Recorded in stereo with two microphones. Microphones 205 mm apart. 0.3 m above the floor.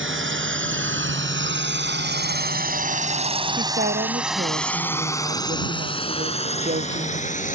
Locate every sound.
0.0 s a drone: 75° right (ahead or behind); by 7.5 s 40° left (ahead or behind)
3.6 s a woman speaking: 45° right (ahead or behind)